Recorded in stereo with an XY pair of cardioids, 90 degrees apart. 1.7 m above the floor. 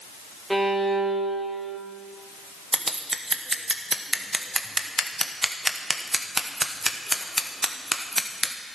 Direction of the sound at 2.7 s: 15° right.